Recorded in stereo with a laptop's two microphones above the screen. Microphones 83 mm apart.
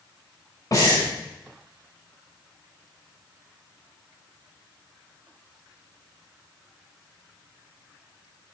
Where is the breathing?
45° left (ahead or behind), 3.5 m.